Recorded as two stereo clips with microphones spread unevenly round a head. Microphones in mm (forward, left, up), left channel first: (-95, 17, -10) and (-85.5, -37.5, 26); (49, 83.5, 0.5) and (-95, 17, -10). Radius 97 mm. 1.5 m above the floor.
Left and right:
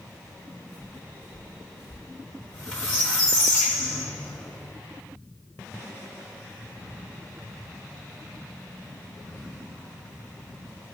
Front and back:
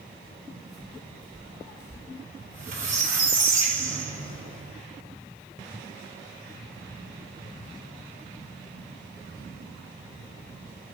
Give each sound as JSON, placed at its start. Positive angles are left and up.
{"t": 0.2, "sound": "footsteps", "azimuth_deg": -65, "distance_m": 1.7}
{"t": 2.4, "sound": "a squeak", "azimuth_deg": 180, "distance_m": 3.5}